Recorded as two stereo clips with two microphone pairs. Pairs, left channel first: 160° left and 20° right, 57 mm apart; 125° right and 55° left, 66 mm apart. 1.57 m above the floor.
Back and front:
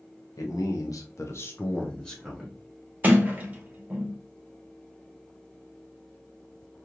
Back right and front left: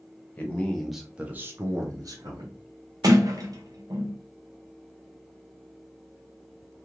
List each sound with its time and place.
0.4 s a man speaking: 165° left, 1.0 m; by 2.6 s 65° left, 1.2 m
3.0 s a sliding door: 40° left, 0.8 m